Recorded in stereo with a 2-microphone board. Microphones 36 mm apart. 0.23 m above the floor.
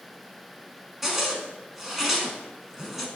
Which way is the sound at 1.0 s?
10° right (ahead or behind).